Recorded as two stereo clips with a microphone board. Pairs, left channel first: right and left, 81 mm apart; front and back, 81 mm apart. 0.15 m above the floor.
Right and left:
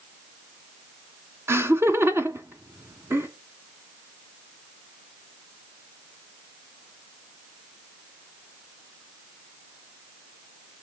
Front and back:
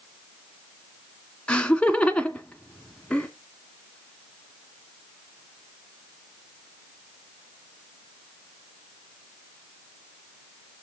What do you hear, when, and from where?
1.5 s laughter: 65° left, 1.6 m